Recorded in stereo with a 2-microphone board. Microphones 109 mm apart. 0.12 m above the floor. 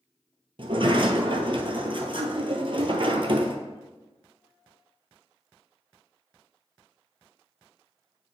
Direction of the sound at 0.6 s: 55° right (ahead or behind).